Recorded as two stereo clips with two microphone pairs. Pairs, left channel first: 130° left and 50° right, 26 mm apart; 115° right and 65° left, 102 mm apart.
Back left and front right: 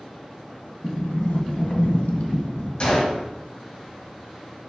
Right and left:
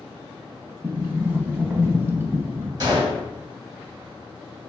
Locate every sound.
0.8 s a sliding door: 130° left, 0.6 m
2.8 s a gunshot: 105° left, 1.9 m